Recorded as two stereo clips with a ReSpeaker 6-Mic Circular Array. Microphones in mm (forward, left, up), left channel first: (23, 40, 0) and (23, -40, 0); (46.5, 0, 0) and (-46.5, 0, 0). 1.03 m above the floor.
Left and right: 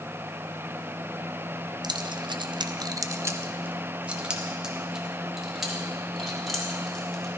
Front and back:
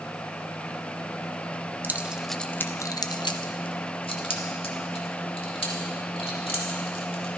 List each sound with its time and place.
1.8 s keys jangling: 115° right, 0.6 m; by 7.3 s 5° left, 3 m